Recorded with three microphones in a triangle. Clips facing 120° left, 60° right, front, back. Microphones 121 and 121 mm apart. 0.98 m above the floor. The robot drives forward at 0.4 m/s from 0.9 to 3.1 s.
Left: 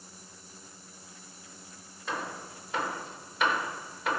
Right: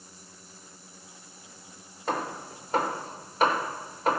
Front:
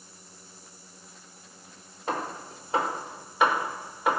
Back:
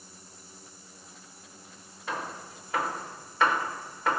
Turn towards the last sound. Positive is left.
turn(degrees=-65)